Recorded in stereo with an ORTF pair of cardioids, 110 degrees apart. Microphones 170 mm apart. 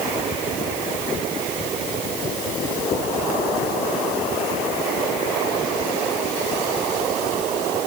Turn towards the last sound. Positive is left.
No sound to turn to.